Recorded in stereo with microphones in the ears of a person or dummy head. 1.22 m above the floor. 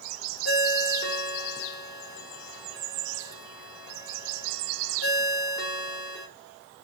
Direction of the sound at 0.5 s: 50° left (ahead or behind).